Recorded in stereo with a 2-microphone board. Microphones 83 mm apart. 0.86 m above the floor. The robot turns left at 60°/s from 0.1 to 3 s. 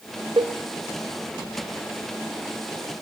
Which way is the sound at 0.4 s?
65° right (ahead or behind).